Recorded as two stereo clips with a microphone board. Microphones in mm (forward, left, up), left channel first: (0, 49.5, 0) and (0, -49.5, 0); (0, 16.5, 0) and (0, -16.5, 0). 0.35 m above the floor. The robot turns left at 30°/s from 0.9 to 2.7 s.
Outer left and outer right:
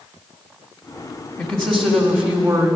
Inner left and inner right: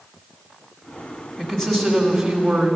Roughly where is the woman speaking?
Ahead left.